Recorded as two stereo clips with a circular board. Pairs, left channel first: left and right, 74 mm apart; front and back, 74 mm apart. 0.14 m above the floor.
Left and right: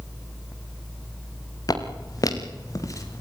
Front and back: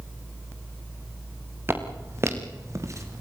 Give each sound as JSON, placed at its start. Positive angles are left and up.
{"t": 1.7, "sound": "footsteps", "azimuth_deg": 120, "distance_m": 3.5}